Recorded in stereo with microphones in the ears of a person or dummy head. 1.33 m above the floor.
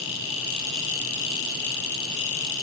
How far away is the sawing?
No sawing in this recording.